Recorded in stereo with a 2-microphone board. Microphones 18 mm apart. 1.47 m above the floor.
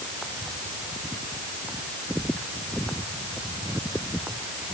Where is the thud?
I don't hear a thud.